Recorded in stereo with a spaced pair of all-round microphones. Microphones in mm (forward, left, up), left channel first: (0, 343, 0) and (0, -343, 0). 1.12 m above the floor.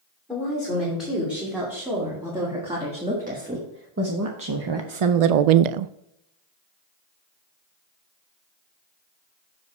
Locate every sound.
0.3 s a woman speaking: centre (ahead or behind), 3 m; by 5.9 s 75° right (ahead or behind), 0.5 m